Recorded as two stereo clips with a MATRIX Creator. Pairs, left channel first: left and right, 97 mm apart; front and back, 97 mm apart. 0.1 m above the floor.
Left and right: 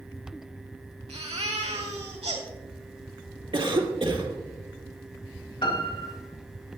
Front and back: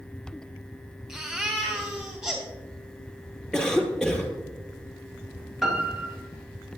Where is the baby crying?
90° right, 3 m.